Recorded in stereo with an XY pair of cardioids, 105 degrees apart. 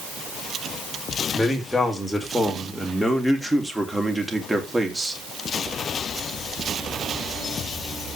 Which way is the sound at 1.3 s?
10° left.